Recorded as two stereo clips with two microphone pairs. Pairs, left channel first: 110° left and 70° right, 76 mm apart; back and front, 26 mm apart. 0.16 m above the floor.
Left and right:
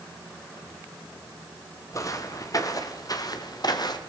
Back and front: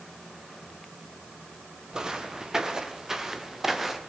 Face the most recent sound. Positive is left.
turn(degrees=80)